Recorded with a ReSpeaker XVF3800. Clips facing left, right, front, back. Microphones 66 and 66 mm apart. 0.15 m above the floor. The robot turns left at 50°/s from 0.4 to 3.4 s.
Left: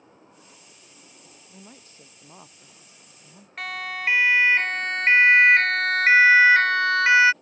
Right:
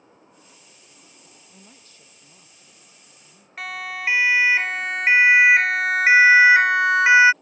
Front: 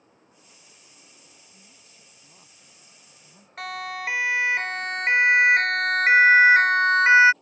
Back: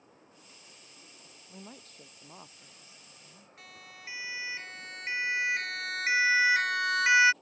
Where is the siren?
5° right; by 7.3 s 30° right.